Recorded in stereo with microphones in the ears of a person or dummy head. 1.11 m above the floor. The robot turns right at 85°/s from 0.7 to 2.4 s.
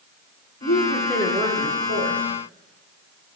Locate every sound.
0.6 s a woman speaking: 140° left, 0.8 m; by 2.2 s 95° right, 0.8 m